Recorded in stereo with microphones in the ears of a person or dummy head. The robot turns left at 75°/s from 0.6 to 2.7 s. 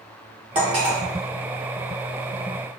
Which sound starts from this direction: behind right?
Cutlery clinking, at 0.6 s.